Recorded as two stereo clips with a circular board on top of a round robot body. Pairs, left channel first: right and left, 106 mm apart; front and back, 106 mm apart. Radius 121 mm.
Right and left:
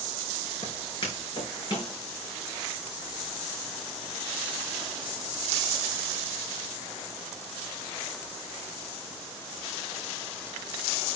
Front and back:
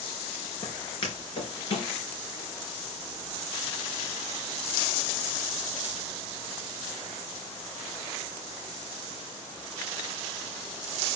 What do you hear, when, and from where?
0.6 s footsteps: 40° right, 4 m; by 1.9 s 35° right, 5 m